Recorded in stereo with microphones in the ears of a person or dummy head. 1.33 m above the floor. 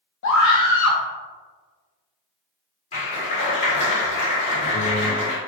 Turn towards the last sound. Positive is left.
turn(degrees=35)  # may be behind; listen again after turning